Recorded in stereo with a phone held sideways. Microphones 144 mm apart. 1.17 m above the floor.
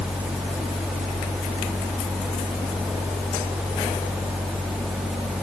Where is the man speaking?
I don't hear a man speaking.